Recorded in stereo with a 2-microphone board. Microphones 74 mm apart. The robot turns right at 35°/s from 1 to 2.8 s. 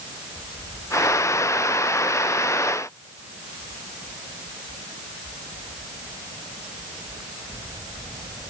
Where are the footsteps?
No footsteps in this recording.